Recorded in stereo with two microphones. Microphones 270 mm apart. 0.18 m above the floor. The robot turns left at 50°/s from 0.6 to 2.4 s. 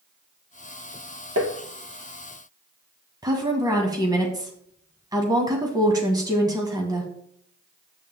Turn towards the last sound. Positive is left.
turn(degrees=-15)  # may be behind; listen again after turning